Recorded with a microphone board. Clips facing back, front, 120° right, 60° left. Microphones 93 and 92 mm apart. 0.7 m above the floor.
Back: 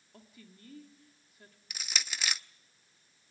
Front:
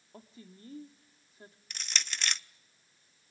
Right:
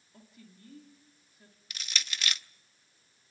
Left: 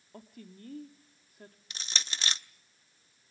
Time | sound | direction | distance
0.1 | a woman speaking | 55° left | 1.7 m
1.7 | crushing | 100° left | 0.5 m